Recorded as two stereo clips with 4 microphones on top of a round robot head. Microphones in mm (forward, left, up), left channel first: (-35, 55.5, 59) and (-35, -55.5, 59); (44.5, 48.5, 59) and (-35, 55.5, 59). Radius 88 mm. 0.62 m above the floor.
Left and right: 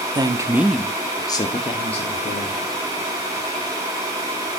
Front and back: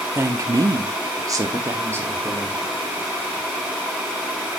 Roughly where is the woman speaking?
Behind right.